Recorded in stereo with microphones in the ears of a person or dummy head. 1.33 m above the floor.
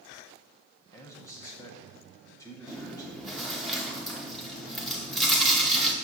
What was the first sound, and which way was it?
A man speaking, 15° left (ahead or behind).